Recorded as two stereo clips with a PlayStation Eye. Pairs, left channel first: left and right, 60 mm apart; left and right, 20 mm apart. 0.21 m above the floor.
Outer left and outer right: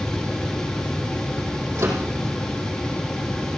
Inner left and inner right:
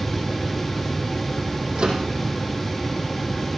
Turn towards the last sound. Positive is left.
turn(degrees=-55)  # may be behind; listen again after turning